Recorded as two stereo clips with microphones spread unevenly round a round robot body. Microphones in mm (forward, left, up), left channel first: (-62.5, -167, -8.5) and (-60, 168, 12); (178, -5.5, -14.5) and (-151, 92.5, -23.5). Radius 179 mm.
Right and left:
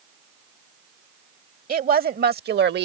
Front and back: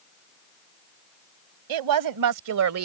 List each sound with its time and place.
1.7 s a woman speaking: 155° left; by 2.9 s 140° left